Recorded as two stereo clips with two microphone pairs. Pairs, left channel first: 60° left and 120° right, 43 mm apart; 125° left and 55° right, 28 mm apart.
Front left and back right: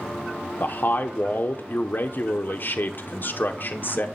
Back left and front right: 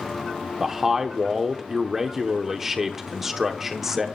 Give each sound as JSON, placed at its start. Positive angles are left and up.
{"t": 0.6, "sound": "a man speaking", "azimuth_deg": 20, "distance_m": 0.9}